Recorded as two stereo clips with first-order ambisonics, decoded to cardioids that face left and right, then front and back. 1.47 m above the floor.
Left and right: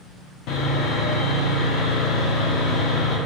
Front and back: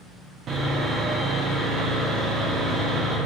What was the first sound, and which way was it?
Sawing, 125° left.